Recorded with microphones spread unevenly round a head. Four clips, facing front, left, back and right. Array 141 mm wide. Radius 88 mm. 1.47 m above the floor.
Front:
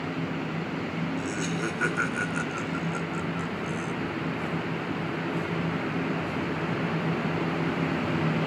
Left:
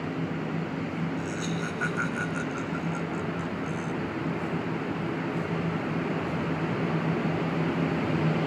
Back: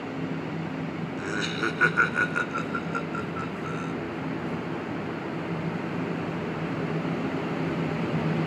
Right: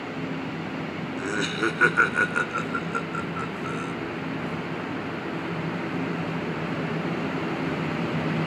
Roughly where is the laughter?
Right.